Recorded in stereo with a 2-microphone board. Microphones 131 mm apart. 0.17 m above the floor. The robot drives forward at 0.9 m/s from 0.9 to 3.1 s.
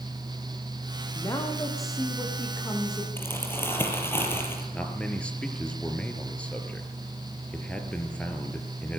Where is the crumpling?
15° left (ahead or behind), 5 m.